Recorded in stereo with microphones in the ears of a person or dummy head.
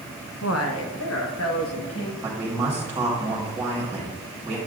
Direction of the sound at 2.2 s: 10° right (ahead or behind).